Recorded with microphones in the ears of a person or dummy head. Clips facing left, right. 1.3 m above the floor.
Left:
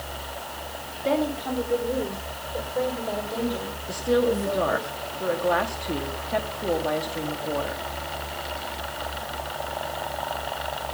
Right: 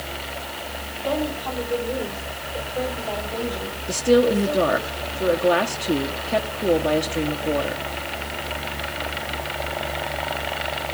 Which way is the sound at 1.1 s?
25° left (ahead or behind).